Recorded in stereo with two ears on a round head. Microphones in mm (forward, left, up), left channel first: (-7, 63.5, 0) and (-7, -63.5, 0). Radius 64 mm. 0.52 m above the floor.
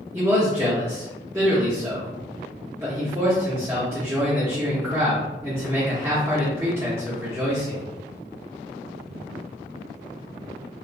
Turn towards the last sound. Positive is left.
turn(degrees=-20)  # may be behind; listen again after turning